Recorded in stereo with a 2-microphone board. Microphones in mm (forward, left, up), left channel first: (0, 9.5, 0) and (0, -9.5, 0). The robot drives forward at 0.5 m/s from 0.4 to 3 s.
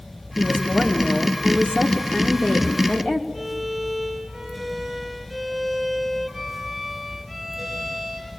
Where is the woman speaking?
85° left, 3 m; by 3.2 s 70° left (ahead or behind), 3.5 m.